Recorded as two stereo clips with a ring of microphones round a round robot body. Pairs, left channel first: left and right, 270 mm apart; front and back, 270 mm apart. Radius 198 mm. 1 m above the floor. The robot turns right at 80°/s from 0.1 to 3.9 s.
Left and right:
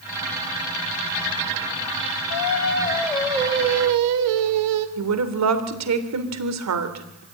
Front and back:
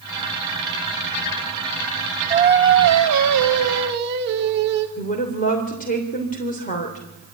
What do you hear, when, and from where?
2.3 s singing: 110° left, 1.4 m; by 4.9 s 120° right, 1.4 m
5.0 s a woman speaking: 70° right, 3 m